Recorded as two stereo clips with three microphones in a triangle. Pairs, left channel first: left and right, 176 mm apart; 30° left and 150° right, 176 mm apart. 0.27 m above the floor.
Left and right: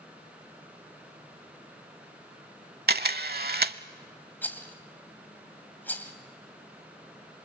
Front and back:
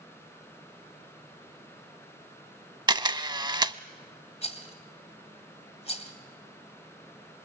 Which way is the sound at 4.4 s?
20° left.